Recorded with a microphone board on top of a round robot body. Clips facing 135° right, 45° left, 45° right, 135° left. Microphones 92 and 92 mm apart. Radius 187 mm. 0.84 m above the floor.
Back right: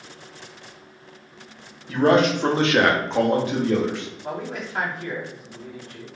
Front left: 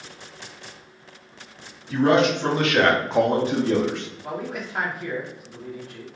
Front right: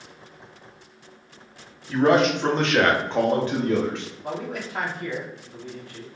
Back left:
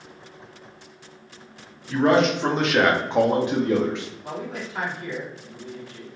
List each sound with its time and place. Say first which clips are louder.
1.9 s a man speaking: back right 1 dB, even; 130° right, 1.3 m; by 4.0 s 65° left, 1.2 m
4.2 s a man speaking: even, front right 4 dB; 35° right, 1.3 m